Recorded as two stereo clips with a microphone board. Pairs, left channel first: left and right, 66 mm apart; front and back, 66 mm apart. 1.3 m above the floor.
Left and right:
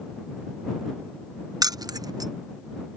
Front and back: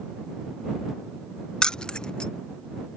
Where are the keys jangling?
75° right.